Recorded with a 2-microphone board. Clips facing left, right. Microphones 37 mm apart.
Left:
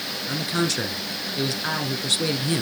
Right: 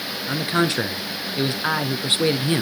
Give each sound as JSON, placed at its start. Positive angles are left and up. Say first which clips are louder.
{"t": 0.3, "sound": "a man speaking", "louder": "right 4 dB", "side_deg": -20, "distance_m": 1.2}